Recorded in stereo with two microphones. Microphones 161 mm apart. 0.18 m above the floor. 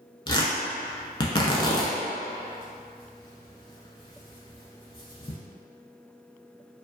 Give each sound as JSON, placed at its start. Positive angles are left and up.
{"t": 0.3, "sound": "tearing paper", "side_deg": 30, "distance_m": 0.6}